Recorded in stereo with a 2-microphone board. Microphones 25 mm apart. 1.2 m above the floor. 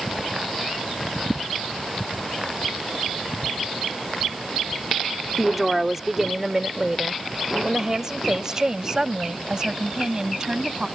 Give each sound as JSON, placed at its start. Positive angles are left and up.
{"t": 5.4, "sound": "a woman speaking", "side_deg": -5}